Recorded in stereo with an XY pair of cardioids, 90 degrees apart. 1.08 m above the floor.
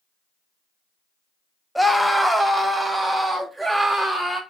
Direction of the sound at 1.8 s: Straight ahead.